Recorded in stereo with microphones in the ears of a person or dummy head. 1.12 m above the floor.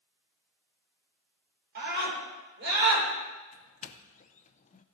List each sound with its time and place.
1.8 s a scream: 60° right (ahead or behind), 5 m
3.5 s a doorbell: 30° left (ahead or behind), 0.5 m